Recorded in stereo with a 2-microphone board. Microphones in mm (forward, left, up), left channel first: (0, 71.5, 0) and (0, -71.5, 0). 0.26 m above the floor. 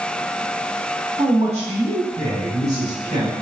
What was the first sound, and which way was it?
A man speaking, 40° right (ahead or behind).